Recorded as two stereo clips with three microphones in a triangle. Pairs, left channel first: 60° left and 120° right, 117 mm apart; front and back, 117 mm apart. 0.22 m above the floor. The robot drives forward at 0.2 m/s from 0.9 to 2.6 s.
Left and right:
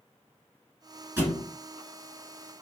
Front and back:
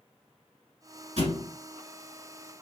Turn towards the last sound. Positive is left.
turn(degrees=175)